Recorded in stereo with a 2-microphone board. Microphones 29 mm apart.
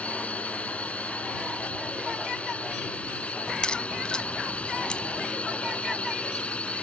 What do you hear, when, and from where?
0.0 s a drone: 50° left (ahead or behind); by 6.8 s 45° left (ahead or behind)
3.5 s a crack: 35° left (ahead or behind)